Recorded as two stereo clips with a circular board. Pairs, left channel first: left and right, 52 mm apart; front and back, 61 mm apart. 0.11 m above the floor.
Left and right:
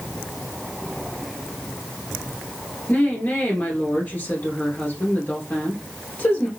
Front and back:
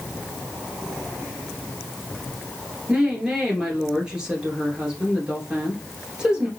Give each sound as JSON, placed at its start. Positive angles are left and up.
{"t": 2.9, "sound": "a woman speaking", "azimuth_deg": 110, "distance_m": 1.8}